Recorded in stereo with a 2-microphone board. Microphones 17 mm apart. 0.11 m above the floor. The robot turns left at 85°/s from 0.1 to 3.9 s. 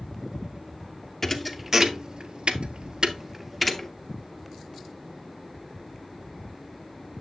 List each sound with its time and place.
1.2 s a thud: 15° left (ahead or behind), 0.7 m; by 3.9 s 25° left (ahead or behind), 0.7 m